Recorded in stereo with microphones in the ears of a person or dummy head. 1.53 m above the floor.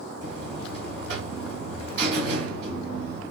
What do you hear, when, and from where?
0.2 s a buzzer: 60° right (ahead or behind), 1.7 m